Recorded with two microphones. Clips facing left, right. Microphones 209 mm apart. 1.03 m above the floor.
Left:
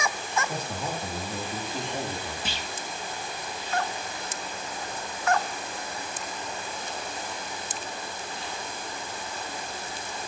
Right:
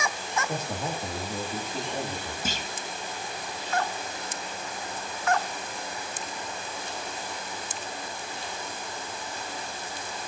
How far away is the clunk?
About 1.3 m.